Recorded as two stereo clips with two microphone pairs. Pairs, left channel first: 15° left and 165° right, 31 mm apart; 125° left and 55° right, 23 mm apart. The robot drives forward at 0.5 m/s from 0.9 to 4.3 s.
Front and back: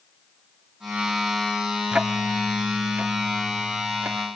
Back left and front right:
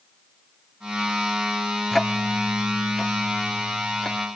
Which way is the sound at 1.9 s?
165° right.